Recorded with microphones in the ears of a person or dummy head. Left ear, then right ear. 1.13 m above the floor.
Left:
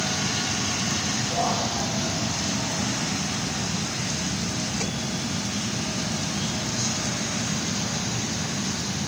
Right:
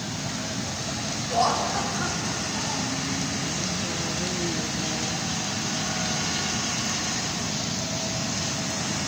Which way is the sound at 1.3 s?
55° right (ahead or behind).